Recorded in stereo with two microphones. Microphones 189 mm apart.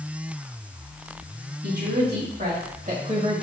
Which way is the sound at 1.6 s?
60° right (ahead or behind).